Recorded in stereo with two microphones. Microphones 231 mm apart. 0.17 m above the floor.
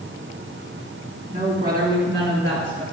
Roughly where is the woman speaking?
Right.